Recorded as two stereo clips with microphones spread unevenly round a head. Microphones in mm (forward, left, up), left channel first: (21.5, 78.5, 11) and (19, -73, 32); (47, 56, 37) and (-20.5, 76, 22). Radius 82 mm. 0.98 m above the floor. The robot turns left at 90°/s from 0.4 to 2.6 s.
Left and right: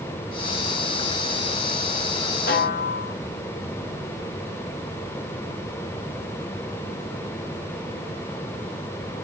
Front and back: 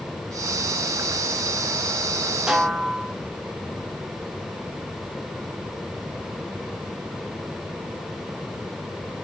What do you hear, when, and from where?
2.5 s a snare drum: 85° left, 2.5 m; by 3.1 s 75° left, 2.5 m